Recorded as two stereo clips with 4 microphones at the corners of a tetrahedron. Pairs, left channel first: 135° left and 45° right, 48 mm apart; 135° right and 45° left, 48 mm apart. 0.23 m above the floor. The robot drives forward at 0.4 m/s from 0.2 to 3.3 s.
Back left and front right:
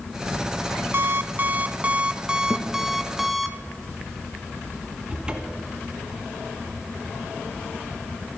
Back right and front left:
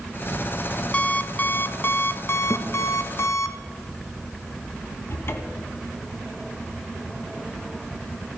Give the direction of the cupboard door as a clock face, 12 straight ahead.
4 o'clock.